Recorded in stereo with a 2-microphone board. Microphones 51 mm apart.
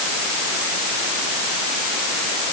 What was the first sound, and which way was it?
Only background noise.